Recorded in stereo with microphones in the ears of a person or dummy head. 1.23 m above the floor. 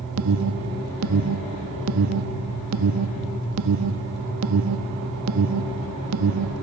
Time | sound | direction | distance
0.2 | an alarm | 70° right (ahead or behind) | 1.2 m